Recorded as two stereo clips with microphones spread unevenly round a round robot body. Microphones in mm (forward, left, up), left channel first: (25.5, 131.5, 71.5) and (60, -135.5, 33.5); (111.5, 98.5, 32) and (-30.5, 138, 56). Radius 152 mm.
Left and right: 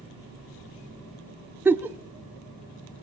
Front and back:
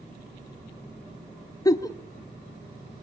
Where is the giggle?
20° right, 1.0 m.